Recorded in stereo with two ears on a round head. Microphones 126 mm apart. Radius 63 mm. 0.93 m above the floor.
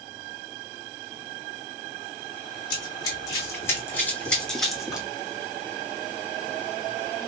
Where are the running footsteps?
30° left (ahead or behind), 2.5 m; by 5.1 s 5° right (ahead or behind), 1.6 m.